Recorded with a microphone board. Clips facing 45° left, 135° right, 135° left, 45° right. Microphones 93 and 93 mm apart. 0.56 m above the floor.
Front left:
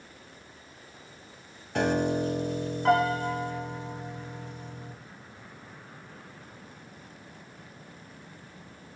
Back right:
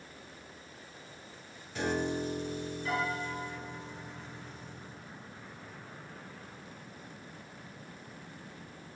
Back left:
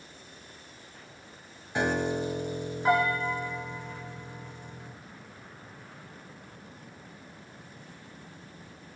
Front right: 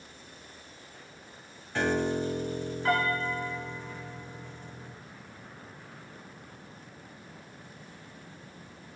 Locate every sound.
1.8 s a piano: 60° left, 2 m